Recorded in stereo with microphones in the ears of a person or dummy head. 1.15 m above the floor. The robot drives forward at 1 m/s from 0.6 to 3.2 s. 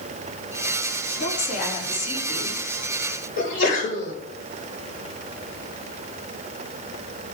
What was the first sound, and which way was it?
A woman speaking, 65° left (ahead or behind).